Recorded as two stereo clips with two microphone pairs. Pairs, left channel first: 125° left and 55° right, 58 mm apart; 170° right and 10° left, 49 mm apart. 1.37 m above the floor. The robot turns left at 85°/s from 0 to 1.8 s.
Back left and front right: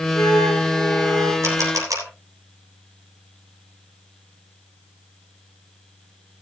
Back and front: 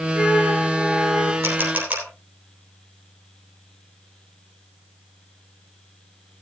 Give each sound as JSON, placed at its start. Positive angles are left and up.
{"t": 0.1, "sound": "a flute", "azimuth_deg": 100, "distance_m": 8.0}
{"t": 1.4, "sound": "a camera shutter", "azimuth_deg": -15, "distance_m": 3.5}